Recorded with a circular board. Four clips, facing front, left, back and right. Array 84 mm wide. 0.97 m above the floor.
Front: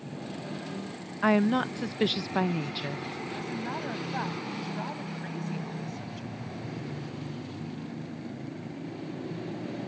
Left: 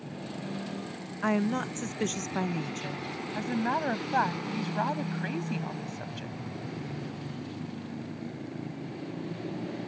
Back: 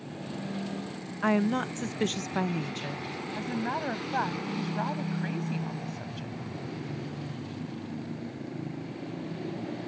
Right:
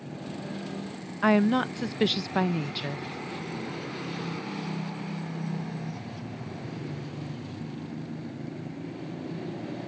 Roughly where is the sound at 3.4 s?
Left.